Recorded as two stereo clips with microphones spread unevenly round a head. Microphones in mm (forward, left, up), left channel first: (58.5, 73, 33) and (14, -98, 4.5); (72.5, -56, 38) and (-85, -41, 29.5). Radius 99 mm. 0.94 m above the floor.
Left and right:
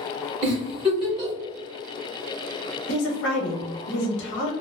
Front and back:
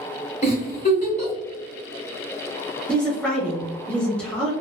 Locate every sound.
0.4 s a giggle: 40° right, 1.6 m
2.9 s a woman speaking: 80° left, 0.9 m